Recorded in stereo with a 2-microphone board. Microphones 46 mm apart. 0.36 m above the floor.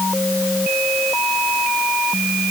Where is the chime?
No chime in this recording.